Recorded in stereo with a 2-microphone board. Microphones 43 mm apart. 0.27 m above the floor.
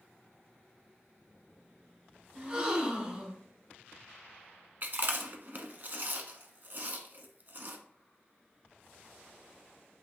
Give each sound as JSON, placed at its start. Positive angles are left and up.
{"t": 2.4, "sound": "a gasp", "side_deg": -25, "distance_m": 1.2}
{"t": 4.8, "sound": "chewing", "side_deg": -50, "distance_m": 0.7}